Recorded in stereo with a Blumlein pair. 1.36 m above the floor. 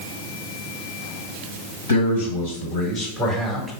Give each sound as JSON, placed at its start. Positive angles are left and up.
{"t": 1.9, "sound": "a man speaking", "azimuth_deg": 70, "distance_m": 1.9}